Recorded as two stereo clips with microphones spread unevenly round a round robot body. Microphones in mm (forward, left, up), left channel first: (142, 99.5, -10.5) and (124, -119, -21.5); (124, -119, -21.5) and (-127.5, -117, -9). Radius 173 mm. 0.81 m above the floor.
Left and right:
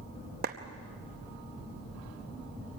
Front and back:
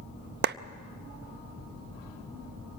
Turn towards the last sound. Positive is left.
turn(degrees=-140)